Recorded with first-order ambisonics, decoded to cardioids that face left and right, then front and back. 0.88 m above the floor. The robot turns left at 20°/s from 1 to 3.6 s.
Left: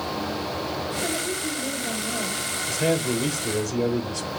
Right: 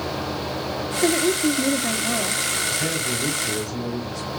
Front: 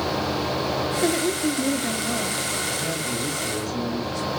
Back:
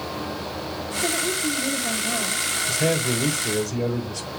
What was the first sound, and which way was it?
A woman speaking, 50° right.